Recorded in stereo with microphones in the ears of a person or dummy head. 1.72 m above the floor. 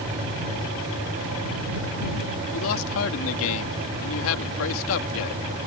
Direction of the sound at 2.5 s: 75° left (ahead or behind).